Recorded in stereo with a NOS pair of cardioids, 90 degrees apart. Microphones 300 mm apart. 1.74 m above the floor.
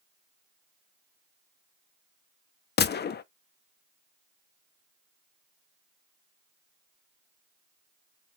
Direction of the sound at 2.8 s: 35° left.